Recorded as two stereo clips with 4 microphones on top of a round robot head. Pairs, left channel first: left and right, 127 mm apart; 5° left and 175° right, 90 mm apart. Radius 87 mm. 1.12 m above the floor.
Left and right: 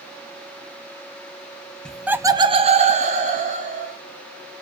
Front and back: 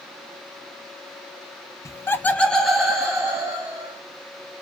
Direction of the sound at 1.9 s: 10° left.